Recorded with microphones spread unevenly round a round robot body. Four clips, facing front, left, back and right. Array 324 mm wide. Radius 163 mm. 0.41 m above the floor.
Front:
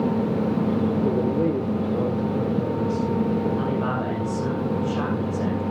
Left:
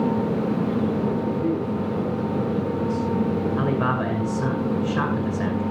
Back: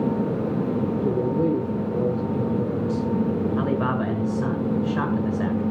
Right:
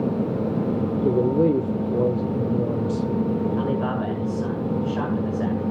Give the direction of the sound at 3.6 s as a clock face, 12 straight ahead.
8 o'clock.